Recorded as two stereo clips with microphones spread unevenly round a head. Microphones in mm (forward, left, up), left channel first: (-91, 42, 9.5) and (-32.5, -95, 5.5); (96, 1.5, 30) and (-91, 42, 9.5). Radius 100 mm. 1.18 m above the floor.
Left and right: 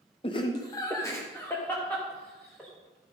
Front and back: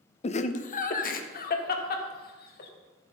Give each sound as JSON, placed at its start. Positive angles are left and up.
{"t": 0.2, "sound": "laughter", "azimuth_deg": 50, "distance_m": 0.7}